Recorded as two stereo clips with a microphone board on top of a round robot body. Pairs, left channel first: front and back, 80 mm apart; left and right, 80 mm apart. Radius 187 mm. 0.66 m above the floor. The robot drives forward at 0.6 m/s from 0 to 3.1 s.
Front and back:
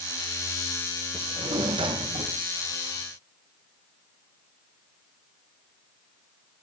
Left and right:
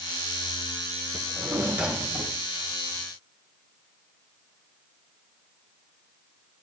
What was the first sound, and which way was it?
A drawer, 160° right.